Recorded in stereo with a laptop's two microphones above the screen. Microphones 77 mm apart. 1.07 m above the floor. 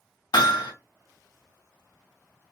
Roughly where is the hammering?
Left.